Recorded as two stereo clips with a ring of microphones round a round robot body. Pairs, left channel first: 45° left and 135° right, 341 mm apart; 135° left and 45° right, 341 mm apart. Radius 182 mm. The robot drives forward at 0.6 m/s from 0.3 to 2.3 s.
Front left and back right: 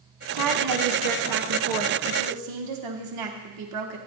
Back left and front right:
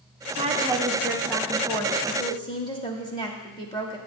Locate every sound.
0.3 s a woman speaking: 115° right, 1.2 m; by 4.0 s 150° right, 2.0 m